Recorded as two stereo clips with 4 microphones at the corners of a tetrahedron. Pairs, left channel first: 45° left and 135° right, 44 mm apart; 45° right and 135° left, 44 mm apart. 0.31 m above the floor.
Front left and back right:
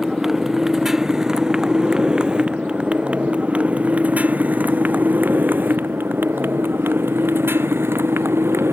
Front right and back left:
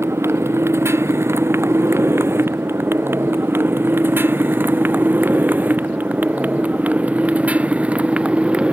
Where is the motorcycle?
140° left; by 8.7 s 160° right.